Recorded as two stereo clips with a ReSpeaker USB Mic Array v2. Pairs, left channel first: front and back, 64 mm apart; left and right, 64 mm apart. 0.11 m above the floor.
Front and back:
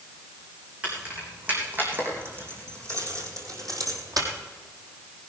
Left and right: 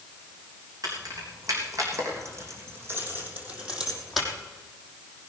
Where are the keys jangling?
110° right, 5.5 m; by 4.3 s straight behind, 3.5 m.